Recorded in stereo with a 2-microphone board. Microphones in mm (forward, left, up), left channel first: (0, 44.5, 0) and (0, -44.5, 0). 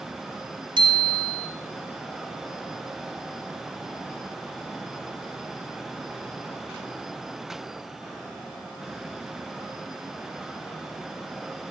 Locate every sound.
0.8 s a bicycle bell: 60° right (ahead or behind), 2 m